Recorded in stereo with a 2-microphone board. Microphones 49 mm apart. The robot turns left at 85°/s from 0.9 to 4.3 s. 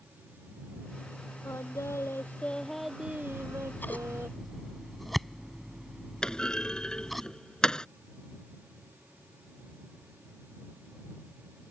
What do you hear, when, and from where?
1.4 s singing: 115° left; by 4.3 s 130° right
3.3 s scissors: 85° left; by 7.2 s centre (ahead or behind)
6.2 s a clunk: 15° left (ahead or behind)